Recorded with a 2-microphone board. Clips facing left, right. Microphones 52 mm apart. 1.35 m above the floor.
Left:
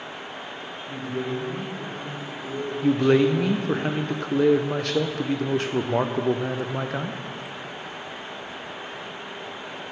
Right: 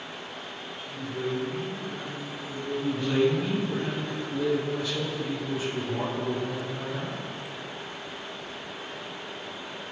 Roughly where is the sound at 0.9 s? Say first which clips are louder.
Left 2 dB; left.